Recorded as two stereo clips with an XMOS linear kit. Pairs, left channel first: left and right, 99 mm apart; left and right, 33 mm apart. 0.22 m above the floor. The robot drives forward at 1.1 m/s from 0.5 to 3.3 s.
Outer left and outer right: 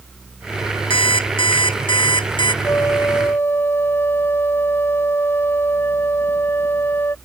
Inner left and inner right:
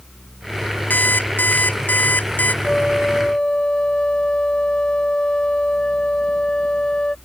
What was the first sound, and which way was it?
An alarm clock, 65° left (ahead or behind).